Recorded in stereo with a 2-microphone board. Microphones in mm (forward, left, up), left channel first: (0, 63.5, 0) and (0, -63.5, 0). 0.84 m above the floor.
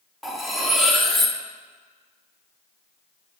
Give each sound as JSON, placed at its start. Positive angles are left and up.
{"t": 0.2, "sound": "cutlery clinking", "side_deg": 0, "distance_m": 0.8}